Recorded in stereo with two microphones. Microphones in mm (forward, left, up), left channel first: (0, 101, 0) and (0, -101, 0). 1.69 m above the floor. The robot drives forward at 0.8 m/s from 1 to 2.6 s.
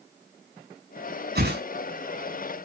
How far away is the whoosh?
About 4.5 m.